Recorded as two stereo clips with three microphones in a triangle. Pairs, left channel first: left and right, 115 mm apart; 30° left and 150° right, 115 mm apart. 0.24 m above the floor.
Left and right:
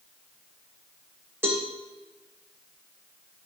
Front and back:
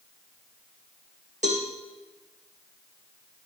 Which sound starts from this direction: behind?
A cowbell, at 1.4 s.